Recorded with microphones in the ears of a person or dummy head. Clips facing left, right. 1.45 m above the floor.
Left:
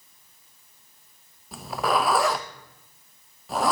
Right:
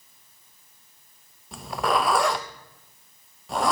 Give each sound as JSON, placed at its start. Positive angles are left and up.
{"t": 1.5, "sound": "a zipper", "side_deg": 0, "distance_m": 0.8}